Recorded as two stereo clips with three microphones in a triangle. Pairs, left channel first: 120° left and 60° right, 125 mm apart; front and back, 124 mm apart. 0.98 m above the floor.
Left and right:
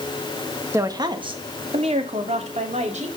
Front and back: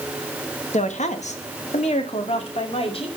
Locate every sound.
0.7 s a woman speaking: 5° left, 1.2 m; by 3.1 s 40° right, 3 m